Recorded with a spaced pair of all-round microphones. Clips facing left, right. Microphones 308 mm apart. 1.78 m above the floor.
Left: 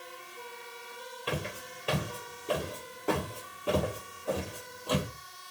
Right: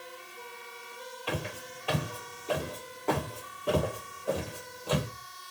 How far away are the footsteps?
About 2.0 m.